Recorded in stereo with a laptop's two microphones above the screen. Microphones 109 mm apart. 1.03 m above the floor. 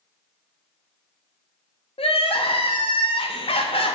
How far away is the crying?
About 0.5 m.